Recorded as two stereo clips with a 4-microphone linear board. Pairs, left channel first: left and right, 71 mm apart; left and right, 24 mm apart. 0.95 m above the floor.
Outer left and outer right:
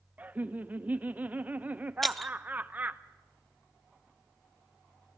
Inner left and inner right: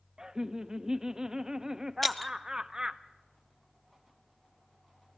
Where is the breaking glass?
Centre (ahead or behind), 0.7 m.